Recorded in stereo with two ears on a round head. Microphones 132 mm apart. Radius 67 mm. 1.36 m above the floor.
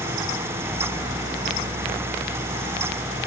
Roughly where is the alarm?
I don't hear an alarm.